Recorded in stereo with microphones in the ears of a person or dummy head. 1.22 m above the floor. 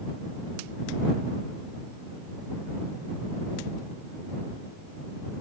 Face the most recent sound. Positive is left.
No sound to turn to.